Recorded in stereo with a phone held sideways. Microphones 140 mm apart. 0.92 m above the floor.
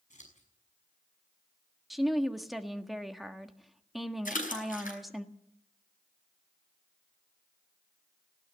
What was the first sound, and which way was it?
Scissors, 60° left (ahead or behind).